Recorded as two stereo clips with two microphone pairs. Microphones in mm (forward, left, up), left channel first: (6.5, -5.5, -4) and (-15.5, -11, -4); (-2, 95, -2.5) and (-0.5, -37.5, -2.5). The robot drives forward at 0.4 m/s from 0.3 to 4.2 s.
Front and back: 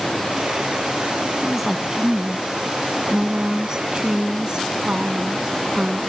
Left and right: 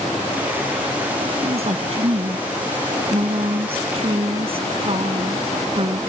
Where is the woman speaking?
90° right; by 6.0 s 120° right.